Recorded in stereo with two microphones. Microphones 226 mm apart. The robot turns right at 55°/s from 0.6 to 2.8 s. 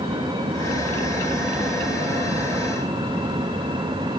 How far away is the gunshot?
No gunshot in this recording.